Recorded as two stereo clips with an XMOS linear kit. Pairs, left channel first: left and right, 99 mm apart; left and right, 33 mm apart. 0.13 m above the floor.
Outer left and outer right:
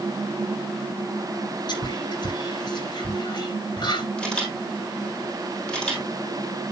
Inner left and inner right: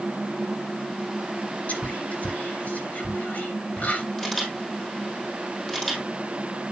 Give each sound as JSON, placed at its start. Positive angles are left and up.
{"t": 1.7, "sound": "whispering", "side_deg": 55, "distance_m": 2.5}
{"t": 4.2, "sound": "a camera shutter", "side_deg": 10, "distance_m": 3.5}